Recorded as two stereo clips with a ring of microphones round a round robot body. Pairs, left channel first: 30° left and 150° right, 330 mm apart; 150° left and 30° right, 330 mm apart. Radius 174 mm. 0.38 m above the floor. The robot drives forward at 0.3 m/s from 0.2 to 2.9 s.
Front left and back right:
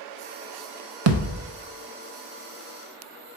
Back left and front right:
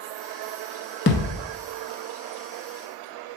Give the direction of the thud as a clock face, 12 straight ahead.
5 o'clock.